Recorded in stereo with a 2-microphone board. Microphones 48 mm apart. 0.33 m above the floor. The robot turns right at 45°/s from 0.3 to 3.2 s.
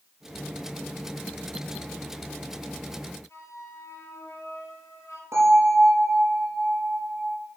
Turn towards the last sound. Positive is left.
turn(degrees=-75)  # may be behind; listen again after turning